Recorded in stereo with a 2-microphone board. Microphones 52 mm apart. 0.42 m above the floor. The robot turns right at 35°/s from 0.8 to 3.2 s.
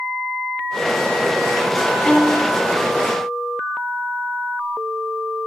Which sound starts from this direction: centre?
A violin, at 2.0 s.